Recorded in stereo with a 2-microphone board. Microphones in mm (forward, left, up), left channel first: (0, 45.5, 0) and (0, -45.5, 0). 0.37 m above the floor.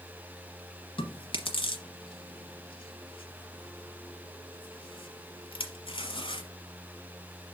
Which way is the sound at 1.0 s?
75° left (ahead or behind).